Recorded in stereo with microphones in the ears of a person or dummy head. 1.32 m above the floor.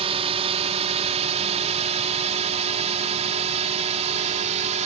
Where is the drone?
30° right (ahead or behind); by 4.9 s 35° right (ahead or behind).